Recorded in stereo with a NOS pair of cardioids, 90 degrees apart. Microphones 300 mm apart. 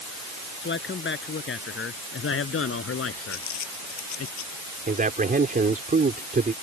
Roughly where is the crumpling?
Ahead left.